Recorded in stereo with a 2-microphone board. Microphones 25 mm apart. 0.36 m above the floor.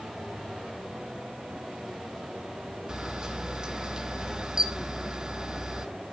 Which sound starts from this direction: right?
A camera shutter, at 2.9 s.